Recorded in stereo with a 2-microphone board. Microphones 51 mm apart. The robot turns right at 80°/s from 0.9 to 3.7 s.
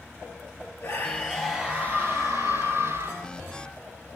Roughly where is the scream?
Behind left.